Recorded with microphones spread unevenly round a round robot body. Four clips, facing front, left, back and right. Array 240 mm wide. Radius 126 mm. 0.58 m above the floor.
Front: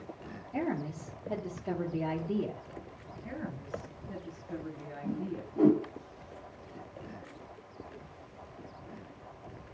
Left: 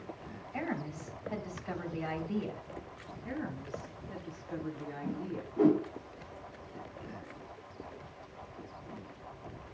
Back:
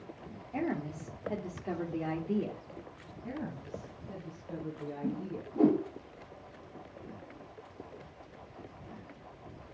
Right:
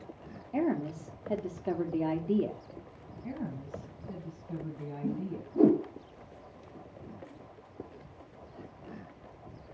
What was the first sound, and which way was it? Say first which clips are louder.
A woman speaking: right 7 dB, front 1 dB; 95° right.